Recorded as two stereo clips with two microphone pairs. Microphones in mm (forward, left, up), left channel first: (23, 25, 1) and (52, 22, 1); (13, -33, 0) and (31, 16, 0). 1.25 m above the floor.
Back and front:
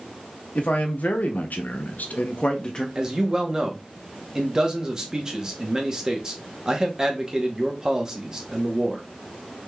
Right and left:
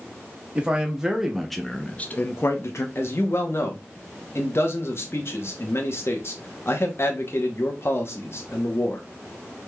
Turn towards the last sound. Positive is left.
turn(degrees=-70)